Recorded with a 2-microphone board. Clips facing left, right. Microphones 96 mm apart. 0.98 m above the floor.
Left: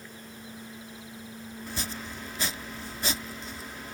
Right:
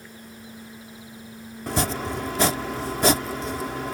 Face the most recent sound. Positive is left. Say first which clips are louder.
# right 14 dB
turn(degrees=-85)